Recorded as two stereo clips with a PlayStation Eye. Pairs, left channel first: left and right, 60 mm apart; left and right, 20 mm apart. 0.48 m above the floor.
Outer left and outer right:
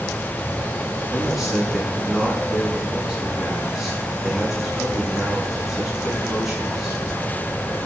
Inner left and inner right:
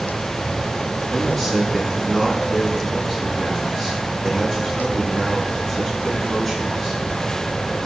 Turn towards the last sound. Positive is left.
turn(degrees=-5)  # may be behind; listen again after turning